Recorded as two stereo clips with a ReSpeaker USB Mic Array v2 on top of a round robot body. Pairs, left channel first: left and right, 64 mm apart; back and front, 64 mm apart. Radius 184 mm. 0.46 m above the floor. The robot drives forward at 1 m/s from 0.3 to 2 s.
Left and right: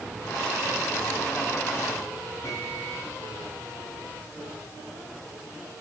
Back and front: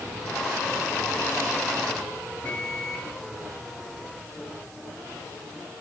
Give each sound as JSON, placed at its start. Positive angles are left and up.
{"t": 2.4, "sound": "a microwave", "azimuth_deg": 115, "distance_m": 6.5}